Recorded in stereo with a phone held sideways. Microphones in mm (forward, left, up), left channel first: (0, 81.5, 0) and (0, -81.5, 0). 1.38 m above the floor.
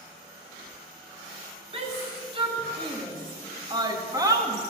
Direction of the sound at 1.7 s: 35° right (ahead or behind).